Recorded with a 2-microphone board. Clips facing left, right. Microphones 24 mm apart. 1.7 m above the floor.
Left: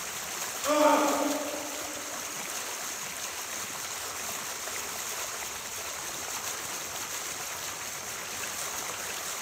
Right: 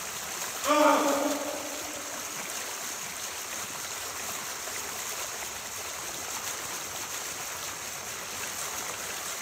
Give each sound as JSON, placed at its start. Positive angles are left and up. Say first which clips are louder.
{"t": 0.6, "sound": "a scream", "louder": "right 1 dB", "side_deg": 0, "distance_m": 7.5}